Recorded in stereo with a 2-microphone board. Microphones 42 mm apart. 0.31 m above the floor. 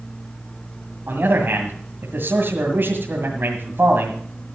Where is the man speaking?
60° right (ahead or behind), 2 m.